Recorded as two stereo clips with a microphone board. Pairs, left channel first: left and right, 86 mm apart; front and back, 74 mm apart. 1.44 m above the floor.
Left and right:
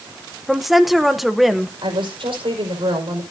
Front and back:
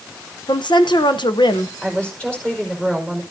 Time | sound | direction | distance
0.5 | a woman speaking | straight ahead | 0.9 m
1.8 | a woman speaking | 75° right | 5 m